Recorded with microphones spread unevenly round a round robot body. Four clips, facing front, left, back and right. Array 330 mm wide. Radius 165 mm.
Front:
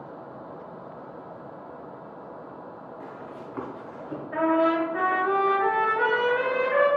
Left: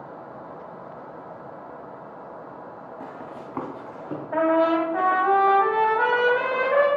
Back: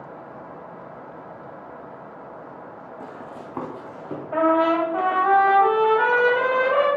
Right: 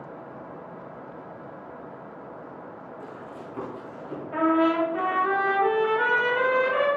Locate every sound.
3.0 s running footsteps: 145° left, 1.9 m
4.3 s a trumpet: 150° left, 2 m